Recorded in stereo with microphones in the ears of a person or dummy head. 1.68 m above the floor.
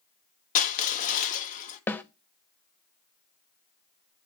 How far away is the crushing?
About 1.0 m.